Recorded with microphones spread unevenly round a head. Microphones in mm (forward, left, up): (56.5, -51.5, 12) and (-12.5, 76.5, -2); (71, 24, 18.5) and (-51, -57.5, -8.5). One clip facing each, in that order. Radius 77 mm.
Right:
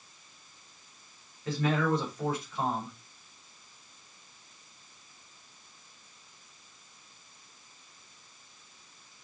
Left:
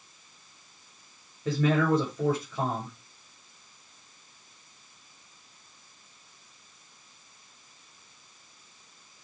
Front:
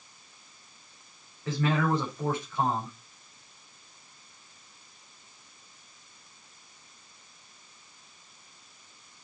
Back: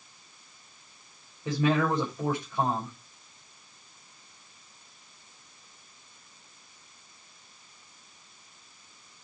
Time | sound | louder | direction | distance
1.4 | a man speaking | left 4 dB, back 2 dB | 140° left | 7.5 m